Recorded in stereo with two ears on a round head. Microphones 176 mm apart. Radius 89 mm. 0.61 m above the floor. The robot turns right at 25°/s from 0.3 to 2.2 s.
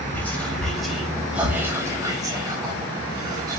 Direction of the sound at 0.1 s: 10° left (ahead or behind).